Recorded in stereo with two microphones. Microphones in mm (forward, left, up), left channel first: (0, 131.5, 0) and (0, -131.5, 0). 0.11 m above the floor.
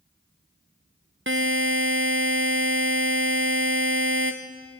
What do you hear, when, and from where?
1.3 s a buzzer: 45° right (ahead or behind), 1.9 m